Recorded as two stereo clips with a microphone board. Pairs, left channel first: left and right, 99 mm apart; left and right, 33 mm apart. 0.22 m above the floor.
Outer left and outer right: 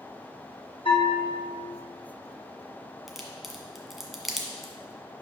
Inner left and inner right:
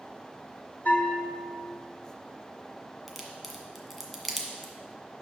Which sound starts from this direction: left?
A bell, at 0.8 s.